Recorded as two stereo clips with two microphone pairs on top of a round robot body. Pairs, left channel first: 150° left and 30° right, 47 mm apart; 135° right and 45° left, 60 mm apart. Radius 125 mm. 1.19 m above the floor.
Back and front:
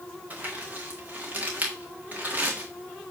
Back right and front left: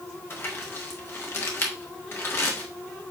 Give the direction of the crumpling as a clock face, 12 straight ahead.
3 o'clock.